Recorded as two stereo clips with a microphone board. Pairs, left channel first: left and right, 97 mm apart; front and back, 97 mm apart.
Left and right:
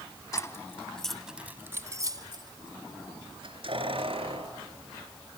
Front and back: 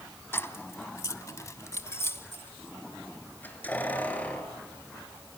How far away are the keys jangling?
About 1.1 m.